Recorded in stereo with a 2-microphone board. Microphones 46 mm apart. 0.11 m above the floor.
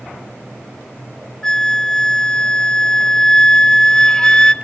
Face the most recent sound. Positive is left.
turn(degrees=15)  # may be behind; listen again after turning